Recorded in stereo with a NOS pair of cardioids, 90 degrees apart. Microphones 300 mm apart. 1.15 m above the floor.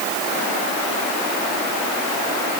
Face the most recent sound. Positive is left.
No sound to turn to.